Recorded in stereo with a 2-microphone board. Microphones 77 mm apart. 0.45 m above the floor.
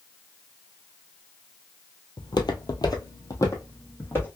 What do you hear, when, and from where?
2.2 s footsteps: 60° left (ahead or behind), 0.8 m; by 4.3 s 30° left (ahead or behind), 1.6 m